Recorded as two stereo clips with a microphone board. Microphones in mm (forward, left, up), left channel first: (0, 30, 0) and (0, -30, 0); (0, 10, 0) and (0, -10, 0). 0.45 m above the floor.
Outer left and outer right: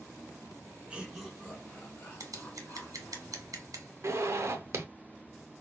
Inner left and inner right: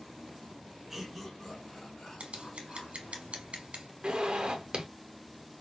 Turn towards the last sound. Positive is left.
turn(degrees=-55)  # may be behind; listen again after turning